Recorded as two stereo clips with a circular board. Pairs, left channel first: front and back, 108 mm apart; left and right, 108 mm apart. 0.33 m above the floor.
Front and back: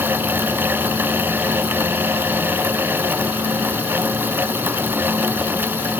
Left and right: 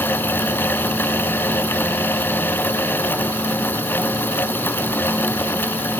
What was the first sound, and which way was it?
Only background noise.